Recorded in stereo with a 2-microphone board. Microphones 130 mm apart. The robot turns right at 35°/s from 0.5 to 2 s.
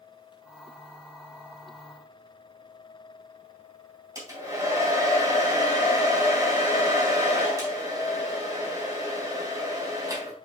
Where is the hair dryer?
25° right (ahead or behind), 3.5 m.